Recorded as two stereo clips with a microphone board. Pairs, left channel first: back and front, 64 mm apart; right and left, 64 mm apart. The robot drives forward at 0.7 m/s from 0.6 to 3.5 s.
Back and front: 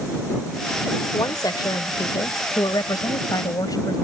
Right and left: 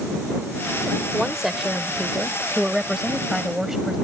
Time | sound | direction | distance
1.1 | a woman speaking | 175° left | ?